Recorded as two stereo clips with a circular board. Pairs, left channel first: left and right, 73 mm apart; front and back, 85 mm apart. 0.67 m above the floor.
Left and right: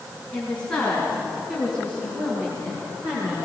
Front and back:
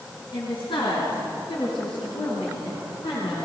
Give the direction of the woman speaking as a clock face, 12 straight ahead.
12 o'clock.